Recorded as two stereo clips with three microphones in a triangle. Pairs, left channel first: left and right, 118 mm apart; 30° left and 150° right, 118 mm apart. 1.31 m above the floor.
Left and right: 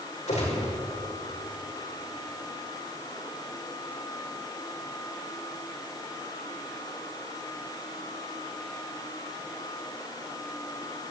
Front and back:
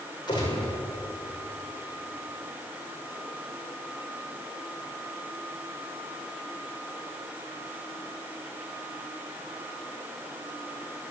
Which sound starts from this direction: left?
A gunshot, at 0.3 s.